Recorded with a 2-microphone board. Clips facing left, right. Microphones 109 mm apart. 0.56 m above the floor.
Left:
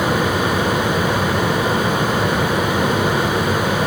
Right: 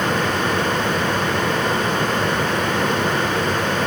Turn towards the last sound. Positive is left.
No sound to turn to.